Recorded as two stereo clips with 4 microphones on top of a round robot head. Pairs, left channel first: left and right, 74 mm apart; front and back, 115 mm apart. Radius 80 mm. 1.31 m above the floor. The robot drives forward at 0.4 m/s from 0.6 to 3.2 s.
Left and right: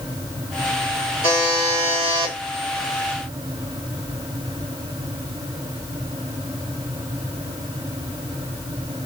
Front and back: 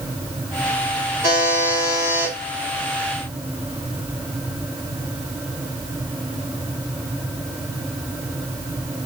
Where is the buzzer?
100° right, 3.5 m; by 2.3 s 110° right, 3.5 m.